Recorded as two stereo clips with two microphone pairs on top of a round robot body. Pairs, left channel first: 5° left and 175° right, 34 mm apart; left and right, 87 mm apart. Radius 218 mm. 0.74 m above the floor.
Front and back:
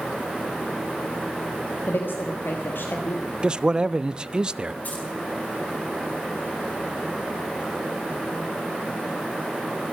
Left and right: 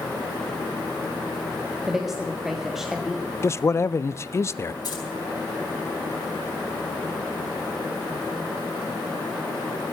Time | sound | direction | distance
1.9 | a woman speaking | 5° right | 1.6 m
3.4 | a man speaking | 140° left | 0.6 m
4.8 | keys jangling | 50° left | 4.5 m